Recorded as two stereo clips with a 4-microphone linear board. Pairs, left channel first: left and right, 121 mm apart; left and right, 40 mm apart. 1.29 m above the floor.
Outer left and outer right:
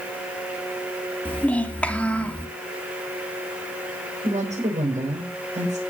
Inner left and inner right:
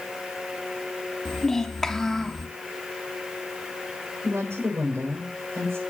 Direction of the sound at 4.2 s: 85° right.